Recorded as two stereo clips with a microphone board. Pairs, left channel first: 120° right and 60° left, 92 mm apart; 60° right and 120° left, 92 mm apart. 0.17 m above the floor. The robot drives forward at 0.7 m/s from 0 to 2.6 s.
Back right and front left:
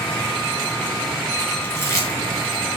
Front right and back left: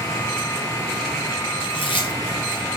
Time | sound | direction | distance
1.6 | chewing | 55° right | 2.5 m